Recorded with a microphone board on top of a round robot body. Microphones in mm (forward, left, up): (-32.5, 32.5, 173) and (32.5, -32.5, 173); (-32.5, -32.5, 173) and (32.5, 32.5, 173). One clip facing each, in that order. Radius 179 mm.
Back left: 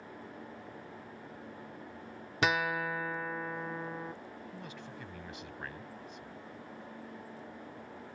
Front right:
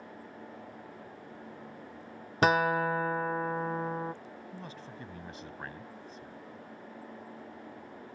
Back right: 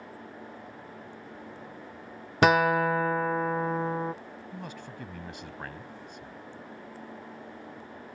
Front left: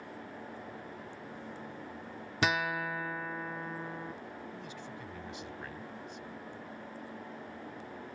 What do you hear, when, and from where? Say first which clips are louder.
2.4 s a guitar: front right 6 dB, back right 10 dB; 95° right
4.5 s a man speaking: front right 1 dB, back right 3 dB; 100° right